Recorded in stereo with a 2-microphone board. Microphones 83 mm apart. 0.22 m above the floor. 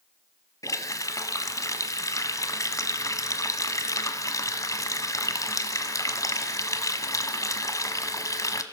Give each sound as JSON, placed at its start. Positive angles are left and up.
{"t": 0.6, "sound": "a running tap", "side_deg": 45, "distance_m": 1.1}